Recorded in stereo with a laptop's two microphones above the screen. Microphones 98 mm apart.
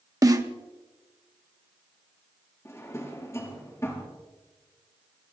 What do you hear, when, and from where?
0.2 s a snare drum: 35° right (ahead or behind), 1.1 m
2.6 s a drawer: 30° left (ahead or behind), 4 m